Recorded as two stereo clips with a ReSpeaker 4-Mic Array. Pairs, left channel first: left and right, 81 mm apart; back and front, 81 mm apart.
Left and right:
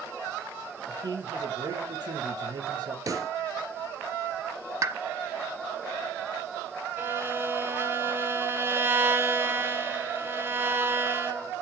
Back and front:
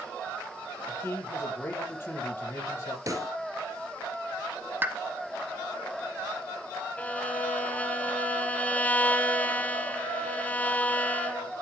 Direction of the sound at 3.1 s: 45° right.